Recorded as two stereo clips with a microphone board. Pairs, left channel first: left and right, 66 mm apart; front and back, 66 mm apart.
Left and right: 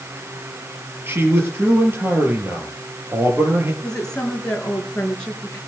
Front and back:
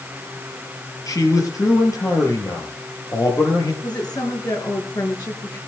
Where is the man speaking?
35° right, 6 m.